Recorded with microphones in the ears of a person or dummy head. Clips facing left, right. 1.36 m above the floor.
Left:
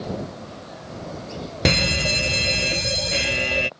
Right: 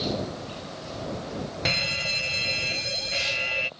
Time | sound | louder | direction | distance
1.6 | a fire alarm | left 10 dB | 65° left (ahead or behind) | ?